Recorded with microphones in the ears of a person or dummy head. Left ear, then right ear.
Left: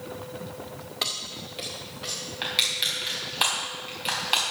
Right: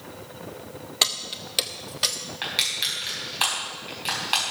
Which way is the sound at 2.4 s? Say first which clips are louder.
Even; centre (ahead or behind).